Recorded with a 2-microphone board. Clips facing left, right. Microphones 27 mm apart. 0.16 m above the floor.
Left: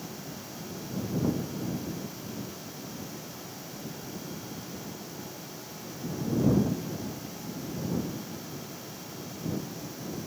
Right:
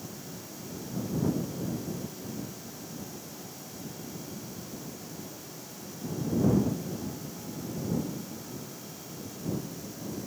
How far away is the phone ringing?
I don't hear a phone ringing.